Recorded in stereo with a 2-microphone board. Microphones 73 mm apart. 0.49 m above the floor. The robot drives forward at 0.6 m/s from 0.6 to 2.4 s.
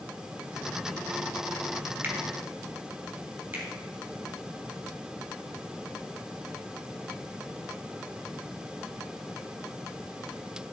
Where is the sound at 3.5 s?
30° right (ahead or behind), 3 m.